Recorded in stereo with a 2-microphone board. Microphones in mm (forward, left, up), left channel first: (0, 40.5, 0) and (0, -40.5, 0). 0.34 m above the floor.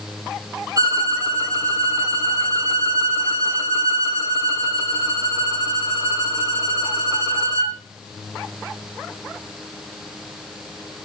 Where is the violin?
45° right (ahead or behind), 2 m.